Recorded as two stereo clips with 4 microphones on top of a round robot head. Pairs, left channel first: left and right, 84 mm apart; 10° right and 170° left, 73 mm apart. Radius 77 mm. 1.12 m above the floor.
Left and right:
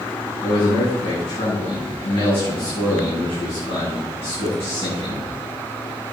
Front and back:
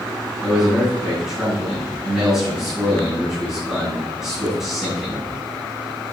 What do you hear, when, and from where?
0.4 s a man speaking: 80° left, 7.5 m